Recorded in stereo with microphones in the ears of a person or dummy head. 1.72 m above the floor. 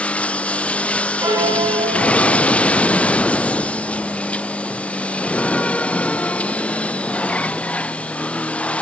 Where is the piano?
15° right (ahead or behind), 2 m.